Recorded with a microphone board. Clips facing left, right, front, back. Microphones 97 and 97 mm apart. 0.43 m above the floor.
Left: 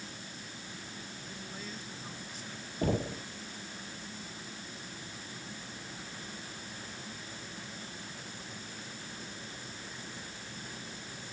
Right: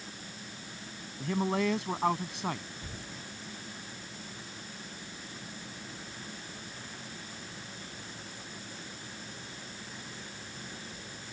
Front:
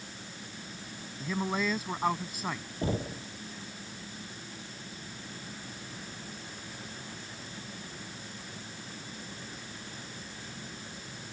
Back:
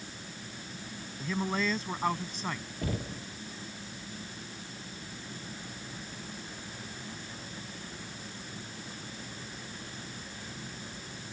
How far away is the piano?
I don't hear a piano.